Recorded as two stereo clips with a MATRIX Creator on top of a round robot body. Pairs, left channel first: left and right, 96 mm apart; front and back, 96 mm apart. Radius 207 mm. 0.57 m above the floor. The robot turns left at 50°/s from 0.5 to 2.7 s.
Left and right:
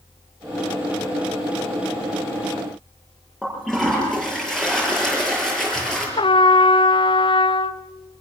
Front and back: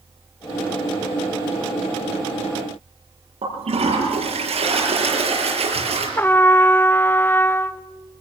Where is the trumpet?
70° left, 1.0 m.